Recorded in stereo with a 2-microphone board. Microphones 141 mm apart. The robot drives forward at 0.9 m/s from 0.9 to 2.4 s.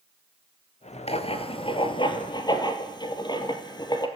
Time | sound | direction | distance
1.1 | writing | 45° left (ahead or behind) | 1.8 m